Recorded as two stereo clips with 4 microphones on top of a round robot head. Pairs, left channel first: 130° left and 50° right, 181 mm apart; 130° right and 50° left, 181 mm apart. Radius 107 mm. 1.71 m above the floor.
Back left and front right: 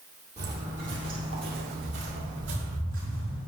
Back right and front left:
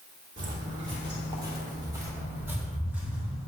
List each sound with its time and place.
0.4 s footsteps: 10° left, 3 m; by 3.4 s 35° right, 4.5 m